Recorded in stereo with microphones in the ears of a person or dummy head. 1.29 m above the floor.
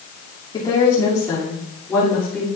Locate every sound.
0.5 s a woman speaking: 20° left (ahead or behind), 3 m; by 2.5 s 5° left (ahead or behind), 3.5 m